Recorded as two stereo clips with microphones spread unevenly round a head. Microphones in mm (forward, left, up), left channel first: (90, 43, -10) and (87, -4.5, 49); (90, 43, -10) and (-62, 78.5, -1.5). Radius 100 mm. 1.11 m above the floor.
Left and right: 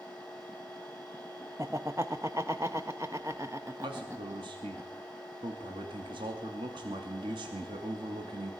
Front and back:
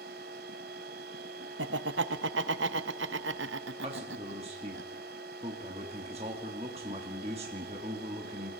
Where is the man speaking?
130° right, 2.5 m.